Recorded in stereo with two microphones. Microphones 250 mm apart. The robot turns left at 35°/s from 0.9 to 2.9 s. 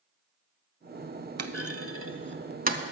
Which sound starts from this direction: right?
A clunk, at 1.4 s.